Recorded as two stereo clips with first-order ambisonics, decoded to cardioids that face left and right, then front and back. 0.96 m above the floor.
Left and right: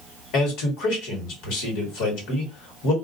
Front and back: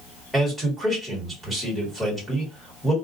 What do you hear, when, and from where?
0.3 s a man speaking: 95° left, 1.5 m